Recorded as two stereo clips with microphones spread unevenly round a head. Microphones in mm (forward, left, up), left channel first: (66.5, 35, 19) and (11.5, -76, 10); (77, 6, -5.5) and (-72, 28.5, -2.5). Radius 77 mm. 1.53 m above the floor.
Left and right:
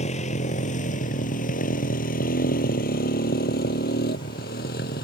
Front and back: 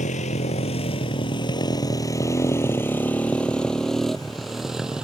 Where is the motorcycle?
35° left; by 5.0 s 85° left.